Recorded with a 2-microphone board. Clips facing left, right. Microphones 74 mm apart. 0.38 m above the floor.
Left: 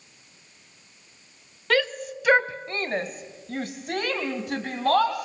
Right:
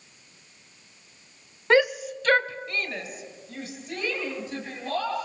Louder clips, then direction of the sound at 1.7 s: Right 4 dB; 25° right (ahead or behind).